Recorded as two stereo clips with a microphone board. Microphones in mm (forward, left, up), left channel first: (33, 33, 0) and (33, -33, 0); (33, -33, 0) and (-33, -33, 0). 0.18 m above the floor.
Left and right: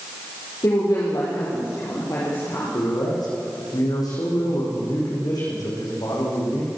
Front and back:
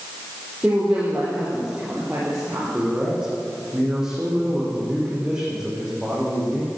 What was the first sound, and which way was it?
A woman speaking, 105° left.